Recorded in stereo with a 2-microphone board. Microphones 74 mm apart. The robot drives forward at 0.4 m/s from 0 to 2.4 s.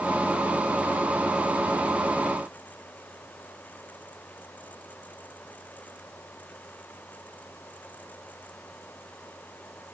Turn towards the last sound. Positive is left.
No sound to turn to.